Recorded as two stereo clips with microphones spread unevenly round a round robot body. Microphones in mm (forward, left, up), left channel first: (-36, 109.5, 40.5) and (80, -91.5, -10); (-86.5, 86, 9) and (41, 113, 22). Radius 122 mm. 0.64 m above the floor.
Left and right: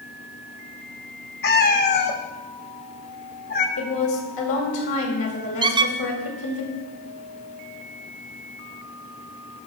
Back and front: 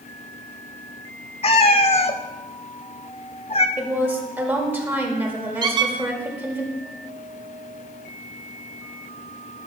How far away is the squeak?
About 0.5 m.